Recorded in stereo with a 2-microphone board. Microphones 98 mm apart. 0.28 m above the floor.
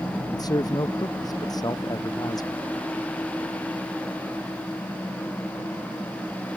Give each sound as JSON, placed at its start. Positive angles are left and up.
{"t": 0.3, "sound": "a man speaking", "side_deg": 45}